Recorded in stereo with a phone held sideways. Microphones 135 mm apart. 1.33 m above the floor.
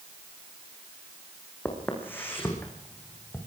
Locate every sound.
1.6 s footsteps: 15° left (ahead or behind), 6 m